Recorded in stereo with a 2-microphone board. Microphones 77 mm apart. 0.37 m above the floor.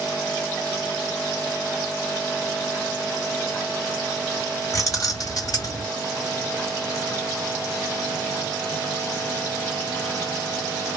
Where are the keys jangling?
45° left (ahead or behind), 1.7 m; by 5.8 s 55° left (ahead or behind), 1.5 m.